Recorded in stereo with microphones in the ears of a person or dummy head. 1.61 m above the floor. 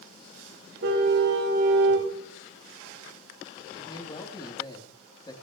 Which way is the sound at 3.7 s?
25° left (ahead or behind).